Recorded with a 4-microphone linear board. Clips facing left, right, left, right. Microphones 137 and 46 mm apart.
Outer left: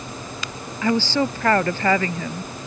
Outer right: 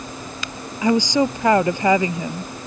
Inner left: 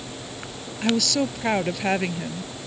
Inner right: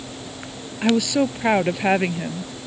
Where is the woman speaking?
15° right (ahead or behind).